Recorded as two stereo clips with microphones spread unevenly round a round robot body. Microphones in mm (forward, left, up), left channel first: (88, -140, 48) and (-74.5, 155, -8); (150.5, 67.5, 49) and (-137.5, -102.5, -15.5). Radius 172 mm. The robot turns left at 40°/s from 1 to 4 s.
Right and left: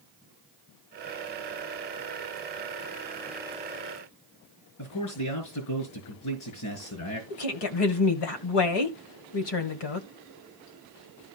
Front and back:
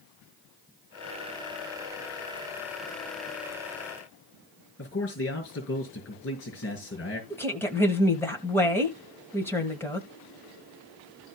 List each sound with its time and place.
4.8 s a man speaking: 25° right, 5.5 m
7.3 s a woman speaking: 60° right, 1.9 m